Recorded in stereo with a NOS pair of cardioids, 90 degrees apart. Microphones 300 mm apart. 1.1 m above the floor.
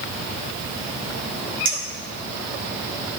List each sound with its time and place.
1.6 s a clink: 40° right, 2.5 m